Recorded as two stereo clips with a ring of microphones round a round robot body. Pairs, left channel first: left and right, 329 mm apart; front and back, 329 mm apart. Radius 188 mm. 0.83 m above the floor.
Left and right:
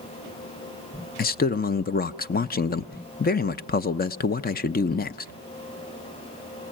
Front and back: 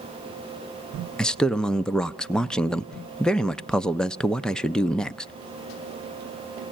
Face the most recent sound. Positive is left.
turn(degrees=85)